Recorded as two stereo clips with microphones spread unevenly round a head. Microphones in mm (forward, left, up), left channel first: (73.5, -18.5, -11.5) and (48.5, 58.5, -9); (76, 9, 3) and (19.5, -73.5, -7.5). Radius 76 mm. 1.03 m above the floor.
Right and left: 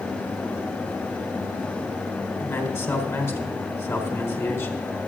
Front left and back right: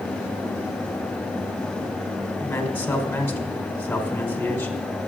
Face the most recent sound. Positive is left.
turn(degrees=-20)